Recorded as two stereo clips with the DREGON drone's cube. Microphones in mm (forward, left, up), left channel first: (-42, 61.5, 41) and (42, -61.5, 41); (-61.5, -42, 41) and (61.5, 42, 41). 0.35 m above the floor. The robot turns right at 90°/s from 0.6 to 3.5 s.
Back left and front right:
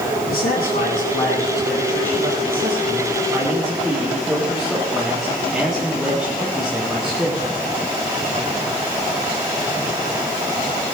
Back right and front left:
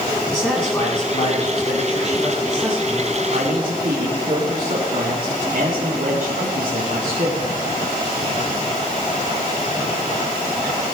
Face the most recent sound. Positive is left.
turn(degrees=35)